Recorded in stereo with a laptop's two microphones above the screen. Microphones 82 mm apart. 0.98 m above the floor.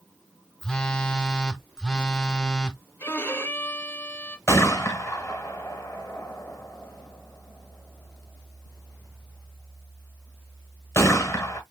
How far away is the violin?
About 1.2 m.